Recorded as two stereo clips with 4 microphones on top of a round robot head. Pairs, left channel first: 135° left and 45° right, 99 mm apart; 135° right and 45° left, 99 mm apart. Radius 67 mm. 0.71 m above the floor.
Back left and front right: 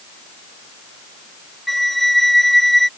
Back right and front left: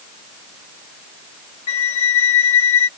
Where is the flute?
135° right.